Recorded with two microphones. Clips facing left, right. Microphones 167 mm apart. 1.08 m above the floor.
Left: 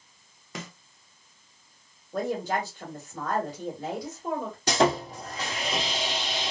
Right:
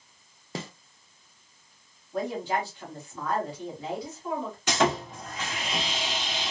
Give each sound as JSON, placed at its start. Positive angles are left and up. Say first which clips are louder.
{"t": 0.6, "sound": "a snare drum", "louder": "right 3 dB", "side_deg": -30, "distance_m": 0.7}
{"t": 2.1, "sound": "a woman speaking", "louder": "left 1 dB", "side_deg": 45, "distance_m": 2.0}
{"t": 4.7, "sound": "sawing", "louder": "left 2 dB", "side_deg": 35, "distance_m": 1.8}